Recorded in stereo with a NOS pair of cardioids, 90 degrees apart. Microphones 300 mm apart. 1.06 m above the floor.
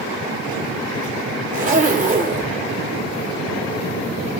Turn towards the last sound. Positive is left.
turn(degrees=-25)